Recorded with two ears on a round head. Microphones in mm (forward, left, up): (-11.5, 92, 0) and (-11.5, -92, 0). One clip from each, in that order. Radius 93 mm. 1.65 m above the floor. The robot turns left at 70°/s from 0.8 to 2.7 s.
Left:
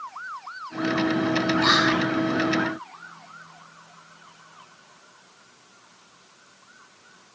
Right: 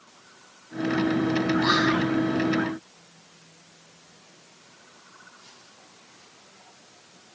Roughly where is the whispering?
Ahead left.